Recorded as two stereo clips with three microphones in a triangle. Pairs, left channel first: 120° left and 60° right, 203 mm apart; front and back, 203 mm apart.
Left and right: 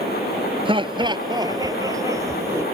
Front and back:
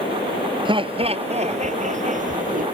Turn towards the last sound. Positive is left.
turn(degrees=-135)